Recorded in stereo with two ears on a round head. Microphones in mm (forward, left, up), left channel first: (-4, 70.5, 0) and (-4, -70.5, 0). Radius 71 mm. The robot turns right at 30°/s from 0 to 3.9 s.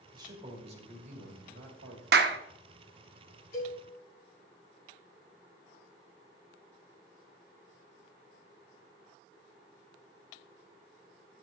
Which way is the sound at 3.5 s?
65° left (ahead or behind).